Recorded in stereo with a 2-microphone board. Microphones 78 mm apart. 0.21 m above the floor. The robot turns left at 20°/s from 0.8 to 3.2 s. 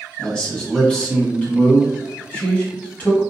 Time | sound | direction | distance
0.2 | a man speaking | 15° left (ahead or behind) | 1.3 m